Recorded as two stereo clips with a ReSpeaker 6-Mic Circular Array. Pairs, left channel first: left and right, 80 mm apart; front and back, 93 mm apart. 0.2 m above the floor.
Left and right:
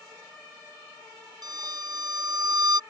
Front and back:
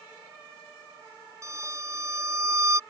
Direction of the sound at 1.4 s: 125° right.